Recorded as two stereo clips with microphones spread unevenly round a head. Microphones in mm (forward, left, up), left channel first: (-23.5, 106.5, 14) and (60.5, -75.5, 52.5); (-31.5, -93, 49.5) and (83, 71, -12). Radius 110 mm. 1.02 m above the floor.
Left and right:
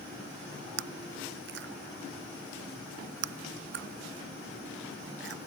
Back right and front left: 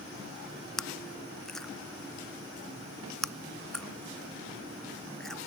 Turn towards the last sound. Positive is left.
turn(degrees=-40)